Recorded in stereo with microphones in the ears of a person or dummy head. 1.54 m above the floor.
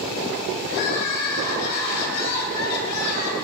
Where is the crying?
60° left (ahead or behind), 5 m.